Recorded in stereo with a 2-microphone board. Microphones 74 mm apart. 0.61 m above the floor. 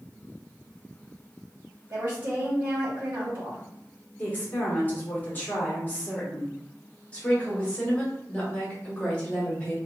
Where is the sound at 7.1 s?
20° left (ahead or behind), 1.1 m.